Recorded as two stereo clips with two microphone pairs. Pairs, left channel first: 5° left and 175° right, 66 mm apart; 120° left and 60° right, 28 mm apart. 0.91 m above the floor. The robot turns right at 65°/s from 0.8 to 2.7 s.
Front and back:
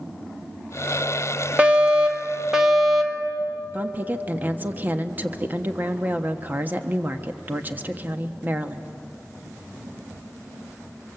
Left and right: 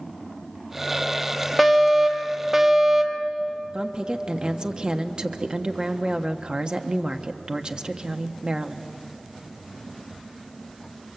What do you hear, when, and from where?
1.6 s a fire alarm: 175° right, 1.7 m; by 3.3 s 105° right, 1.7 m
3.7 s a woman speaking: 115° right, 1.2 m